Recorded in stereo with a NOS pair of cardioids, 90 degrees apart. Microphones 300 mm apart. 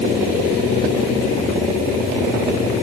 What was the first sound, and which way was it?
Only background noise.